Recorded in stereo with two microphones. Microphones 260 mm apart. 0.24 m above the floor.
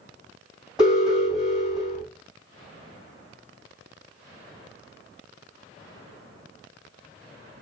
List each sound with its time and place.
0.8 s an alarm: centre (ahead or behind), 2.0 m